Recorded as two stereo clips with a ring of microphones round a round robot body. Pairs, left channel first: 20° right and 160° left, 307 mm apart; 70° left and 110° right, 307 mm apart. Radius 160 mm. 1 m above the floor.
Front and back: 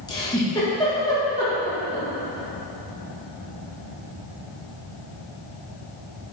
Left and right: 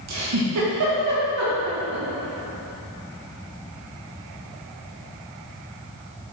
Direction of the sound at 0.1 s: 100° right.